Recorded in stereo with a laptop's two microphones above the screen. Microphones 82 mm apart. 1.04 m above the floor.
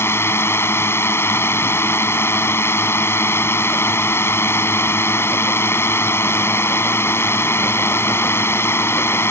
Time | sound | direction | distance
0.0 | a drone | 30° left (ahead or behind) | ?